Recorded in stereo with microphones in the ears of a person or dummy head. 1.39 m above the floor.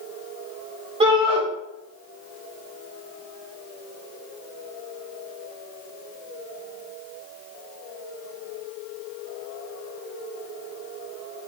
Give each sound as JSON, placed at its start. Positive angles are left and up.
{"t": 1.0, "sound": "a shout", "side_deg": -25, "distance_m": 1.4}